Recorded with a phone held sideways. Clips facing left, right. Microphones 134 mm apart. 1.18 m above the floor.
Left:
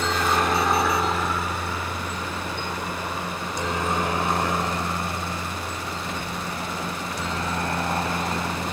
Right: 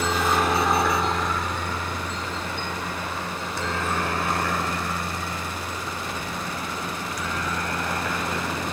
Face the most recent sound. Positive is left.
turn(degrees=30)  # may be behind; listen again after turning